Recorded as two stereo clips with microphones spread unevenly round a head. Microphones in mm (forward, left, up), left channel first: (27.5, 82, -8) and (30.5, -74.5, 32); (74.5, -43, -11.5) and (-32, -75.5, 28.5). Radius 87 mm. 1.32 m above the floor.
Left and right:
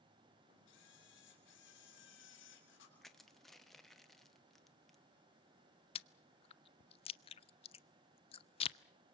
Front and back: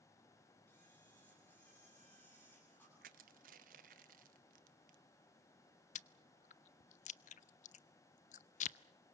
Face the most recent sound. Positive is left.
turn(degrees=35)